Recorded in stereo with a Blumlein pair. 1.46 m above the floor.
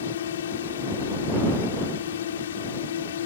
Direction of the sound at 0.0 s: 60° left.